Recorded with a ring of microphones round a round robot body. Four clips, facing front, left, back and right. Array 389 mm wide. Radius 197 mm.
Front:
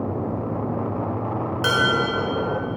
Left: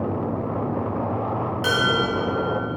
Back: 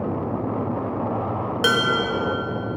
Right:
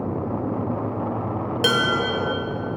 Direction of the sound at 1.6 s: 125° right.